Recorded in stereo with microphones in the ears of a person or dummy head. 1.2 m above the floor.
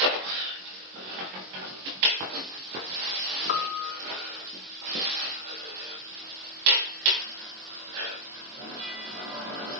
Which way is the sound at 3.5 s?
50° left (ahead or behind).